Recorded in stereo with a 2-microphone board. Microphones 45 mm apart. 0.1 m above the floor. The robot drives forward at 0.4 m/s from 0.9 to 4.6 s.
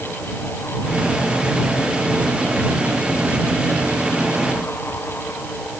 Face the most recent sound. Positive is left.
No sound to turn to.